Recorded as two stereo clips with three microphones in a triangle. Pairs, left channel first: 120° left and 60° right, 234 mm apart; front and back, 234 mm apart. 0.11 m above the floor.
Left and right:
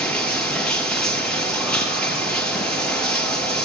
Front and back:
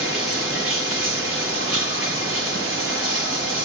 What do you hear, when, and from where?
0.0 s running water: 155° right, 4 m